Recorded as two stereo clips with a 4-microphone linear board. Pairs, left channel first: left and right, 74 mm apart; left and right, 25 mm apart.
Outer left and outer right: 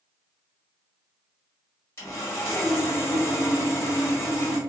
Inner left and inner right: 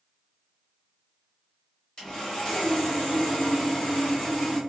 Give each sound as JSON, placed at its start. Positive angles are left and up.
{"t": 2.0, "sound": "sawing", "side_deg": 35, "distance_m": 1.3}